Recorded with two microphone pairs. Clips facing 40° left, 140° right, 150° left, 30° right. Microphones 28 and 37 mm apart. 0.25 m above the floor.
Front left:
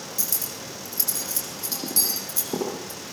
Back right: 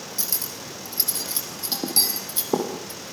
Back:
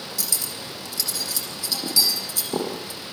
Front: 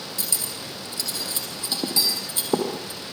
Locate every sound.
0.2 s cutlery clinking: 90° right, 7 m